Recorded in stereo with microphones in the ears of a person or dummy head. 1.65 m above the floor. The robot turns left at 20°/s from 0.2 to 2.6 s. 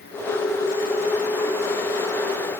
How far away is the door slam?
I don't hear a door slam.